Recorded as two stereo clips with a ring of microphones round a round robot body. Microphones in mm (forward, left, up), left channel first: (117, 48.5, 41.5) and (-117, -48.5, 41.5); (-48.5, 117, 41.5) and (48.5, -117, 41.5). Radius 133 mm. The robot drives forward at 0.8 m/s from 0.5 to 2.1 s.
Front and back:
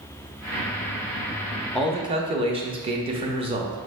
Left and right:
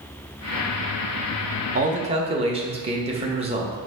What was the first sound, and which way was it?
A man speaking, 60° right.